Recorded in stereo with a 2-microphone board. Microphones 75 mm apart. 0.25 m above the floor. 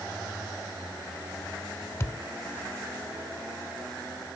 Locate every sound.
2.0 s a thud: 35° left (ahead or behind), 0.6 m